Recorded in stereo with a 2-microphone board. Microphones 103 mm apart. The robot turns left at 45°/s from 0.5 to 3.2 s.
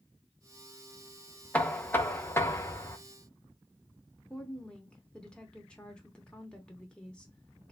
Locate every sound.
1.5 s knocking: 15° left (ahead or behind), 0.5 m; by 3.0 s 25° left (ahead or behind), 0.5 m
4.3 s a woman speaking: 10° left (ahead or behind), 0.8 m